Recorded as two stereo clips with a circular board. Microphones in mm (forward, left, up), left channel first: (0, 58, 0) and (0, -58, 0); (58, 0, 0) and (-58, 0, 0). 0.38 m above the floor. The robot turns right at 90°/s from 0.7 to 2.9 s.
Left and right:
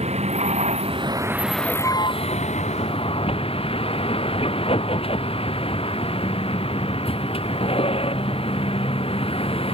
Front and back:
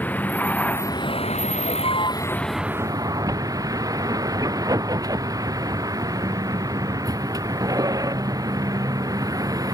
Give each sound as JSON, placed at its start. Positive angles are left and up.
{"t": 0.0, "sound": "a vehicle", "azimuth_deg": -75}